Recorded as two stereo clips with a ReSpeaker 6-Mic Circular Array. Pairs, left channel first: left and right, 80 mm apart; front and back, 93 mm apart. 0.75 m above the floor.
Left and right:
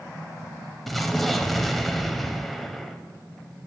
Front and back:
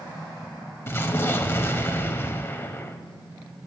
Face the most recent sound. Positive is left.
turn(degrees=5)